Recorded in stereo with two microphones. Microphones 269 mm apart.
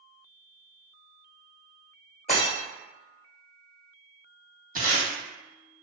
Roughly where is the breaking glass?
Left.